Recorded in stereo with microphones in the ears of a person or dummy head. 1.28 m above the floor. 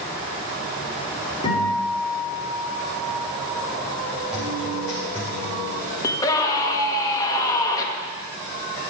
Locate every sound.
1.4 s a guitar: 25° left (ahead or behind), 6 m
4.3 s a guitar: 5° right (ahead or behind), 5.5 m
6.0 s a scream: 15° left (ahead or behind), 1.9 m